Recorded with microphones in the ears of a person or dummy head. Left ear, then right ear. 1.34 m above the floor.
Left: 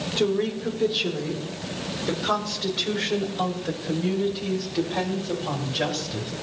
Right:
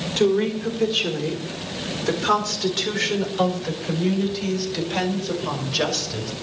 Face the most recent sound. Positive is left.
turn(degrees=-80)